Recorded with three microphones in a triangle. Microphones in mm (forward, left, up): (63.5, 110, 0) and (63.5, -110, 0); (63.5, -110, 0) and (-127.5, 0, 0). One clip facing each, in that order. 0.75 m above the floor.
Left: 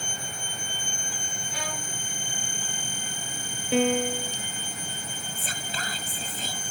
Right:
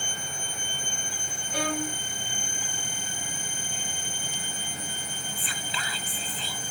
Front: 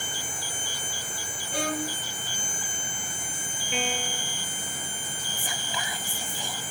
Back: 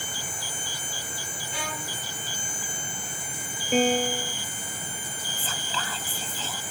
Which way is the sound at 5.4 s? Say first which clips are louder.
Left 2 dB, back 1 dB; 45° left.